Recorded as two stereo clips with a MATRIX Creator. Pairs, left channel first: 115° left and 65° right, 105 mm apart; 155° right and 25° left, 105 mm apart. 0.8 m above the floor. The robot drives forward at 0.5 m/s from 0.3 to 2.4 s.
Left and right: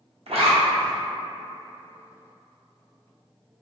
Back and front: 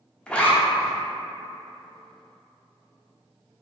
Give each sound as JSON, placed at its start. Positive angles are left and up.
{"t": 0.3, "sound": "a zipper", "azimuth_deg": -75, "distance_m": 0.6}